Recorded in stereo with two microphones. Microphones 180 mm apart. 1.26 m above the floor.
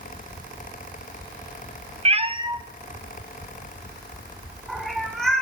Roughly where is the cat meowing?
Right.